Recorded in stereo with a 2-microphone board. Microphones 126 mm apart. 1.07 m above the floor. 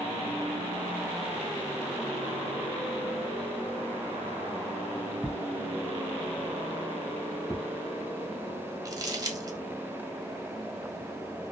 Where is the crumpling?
30° right (ahead or behind), 0.7 m.